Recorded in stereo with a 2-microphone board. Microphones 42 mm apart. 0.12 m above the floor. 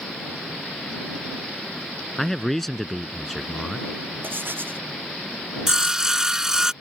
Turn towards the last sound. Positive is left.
turn(degrees=-15)  # may be behind; listen again after turning